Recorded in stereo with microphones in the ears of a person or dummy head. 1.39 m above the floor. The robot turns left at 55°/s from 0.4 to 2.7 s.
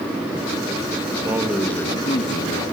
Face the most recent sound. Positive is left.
turn(degrees=120)